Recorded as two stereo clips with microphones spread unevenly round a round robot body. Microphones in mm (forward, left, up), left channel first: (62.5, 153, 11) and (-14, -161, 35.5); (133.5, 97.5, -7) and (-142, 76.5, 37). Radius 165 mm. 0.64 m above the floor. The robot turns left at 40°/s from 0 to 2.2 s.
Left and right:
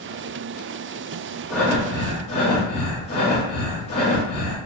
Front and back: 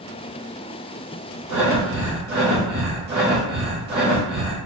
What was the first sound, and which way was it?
Breathing, 160° left.